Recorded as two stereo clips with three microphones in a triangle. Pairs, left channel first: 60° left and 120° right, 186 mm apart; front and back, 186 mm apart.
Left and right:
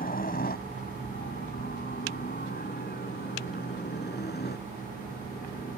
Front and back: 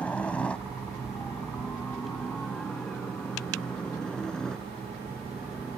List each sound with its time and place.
0.0 s a helicopter: 80° left; by 5.8 s 85° left